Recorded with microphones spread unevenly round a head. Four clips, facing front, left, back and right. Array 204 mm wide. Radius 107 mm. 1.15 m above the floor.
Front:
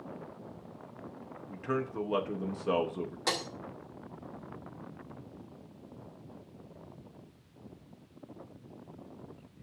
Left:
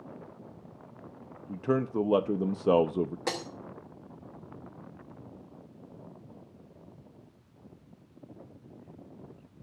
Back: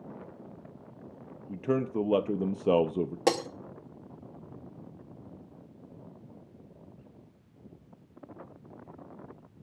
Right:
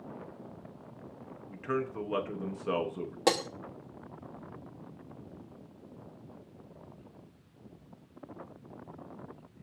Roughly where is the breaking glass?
Behind right.